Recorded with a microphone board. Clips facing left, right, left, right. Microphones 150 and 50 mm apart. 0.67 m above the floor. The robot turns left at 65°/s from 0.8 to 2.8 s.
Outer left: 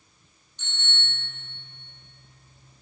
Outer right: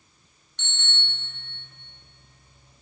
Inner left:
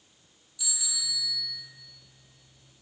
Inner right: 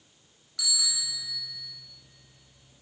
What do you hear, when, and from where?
0.6 s a bicycle bell: 100° right, 4.5 m; by 1.4 s 135° right, 4.5 m